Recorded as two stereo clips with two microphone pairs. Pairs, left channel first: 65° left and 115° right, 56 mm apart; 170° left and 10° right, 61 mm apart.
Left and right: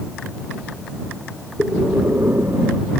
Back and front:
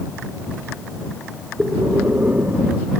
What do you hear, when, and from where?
1.6 s breathing: 70° right